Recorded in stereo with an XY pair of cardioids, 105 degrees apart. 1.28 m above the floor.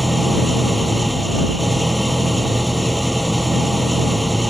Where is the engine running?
5° right.